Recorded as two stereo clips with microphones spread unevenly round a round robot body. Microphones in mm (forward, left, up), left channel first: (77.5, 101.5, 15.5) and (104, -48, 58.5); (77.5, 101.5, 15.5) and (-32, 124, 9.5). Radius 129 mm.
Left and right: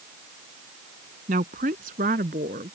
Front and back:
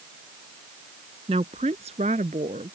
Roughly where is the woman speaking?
Behind right.